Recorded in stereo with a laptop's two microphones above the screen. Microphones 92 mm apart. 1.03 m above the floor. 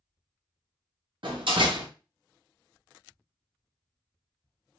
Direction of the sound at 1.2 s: 65° right (ahead or behind).